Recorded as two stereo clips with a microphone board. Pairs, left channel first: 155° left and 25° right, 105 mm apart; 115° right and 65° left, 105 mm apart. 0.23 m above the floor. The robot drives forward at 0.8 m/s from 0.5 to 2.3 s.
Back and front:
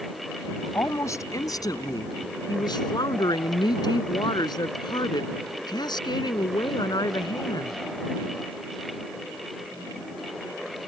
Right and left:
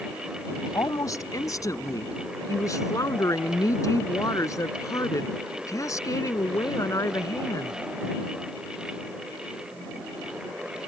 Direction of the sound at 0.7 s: 150° right.